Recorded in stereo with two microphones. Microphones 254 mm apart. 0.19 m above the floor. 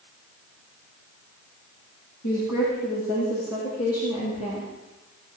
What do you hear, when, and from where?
2.2 s a woman speaking: 80° left, 6.5 m; by 4.7 s 70° left (ahead or behind), 6 m